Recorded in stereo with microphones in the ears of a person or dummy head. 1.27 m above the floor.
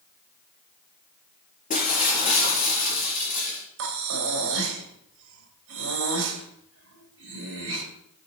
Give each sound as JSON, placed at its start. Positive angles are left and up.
{"t": 1.7, "sound": "breaking glass", "side_deg": 40, "distance_m": 4.5}
{"t": 3.8, "sound": "breathing", "side_deg": -70, "distance_m": 2.5}